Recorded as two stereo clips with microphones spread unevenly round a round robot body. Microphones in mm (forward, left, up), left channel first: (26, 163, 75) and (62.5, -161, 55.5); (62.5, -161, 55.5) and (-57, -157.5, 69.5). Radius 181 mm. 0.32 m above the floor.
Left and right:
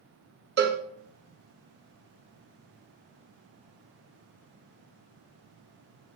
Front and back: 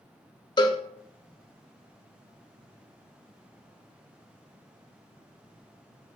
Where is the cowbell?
35° right, 1.4 m.